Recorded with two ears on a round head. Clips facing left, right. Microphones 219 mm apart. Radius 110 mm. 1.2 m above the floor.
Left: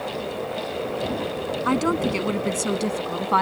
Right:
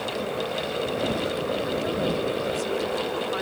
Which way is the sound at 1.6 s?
85° left.